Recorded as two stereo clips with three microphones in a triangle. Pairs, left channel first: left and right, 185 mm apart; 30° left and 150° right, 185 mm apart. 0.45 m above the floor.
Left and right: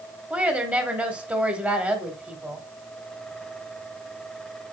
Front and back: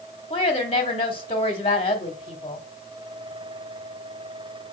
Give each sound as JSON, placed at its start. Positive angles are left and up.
{"t": 0.3, "sound": "a woman speaking", "azimuth_deg": -15, "distance_m": 0.9}